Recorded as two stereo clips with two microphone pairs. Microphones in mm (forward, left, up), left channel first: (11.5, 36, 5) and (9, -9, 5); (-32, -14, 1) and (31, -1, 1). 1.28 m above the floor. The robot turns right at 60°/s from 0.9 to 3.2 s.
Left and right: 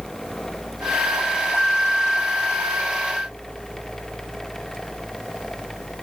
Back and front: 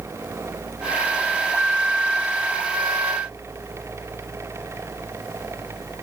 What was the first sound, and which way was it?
Only background noise.